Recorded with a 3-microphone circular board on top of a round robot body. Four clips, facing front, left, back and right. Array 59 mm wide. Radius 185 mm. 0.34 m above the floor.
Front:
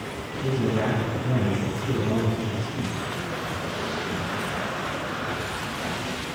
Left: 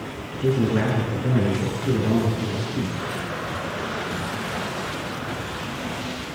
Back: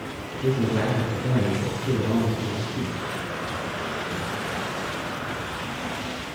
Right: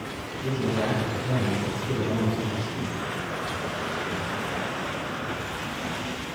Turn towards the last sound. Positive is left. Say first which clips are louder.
# left 6 dB, back 1 dB
turn(degrees=110)